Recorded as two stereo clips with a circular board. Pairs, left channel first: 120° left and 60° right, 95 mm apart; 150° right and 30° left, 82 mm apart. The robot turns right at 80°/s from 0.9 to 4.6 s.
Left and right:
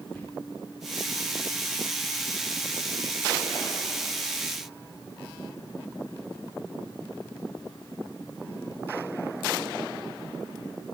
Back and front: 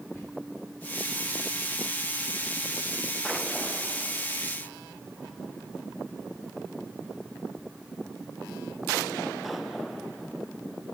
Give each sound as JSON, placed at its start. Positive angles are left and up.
{"t": 0.1, "sound": "whispering", "azimuth_deg": -175, "distance_m": 1.1}